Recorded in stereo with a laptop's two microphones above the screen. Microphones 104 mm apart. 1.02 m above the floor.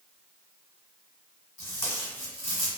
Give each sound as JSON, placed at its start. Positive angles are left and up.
{"t": 1.6, "sound": "tape being pulled", "side_deg": 25, "distance_m": 1.1}